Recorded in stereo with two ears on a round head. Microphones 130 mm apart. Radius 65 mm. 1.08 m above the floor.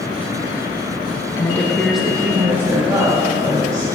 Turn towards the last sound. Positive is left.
turn(degrees=-25)  # may be behind; listen again after turning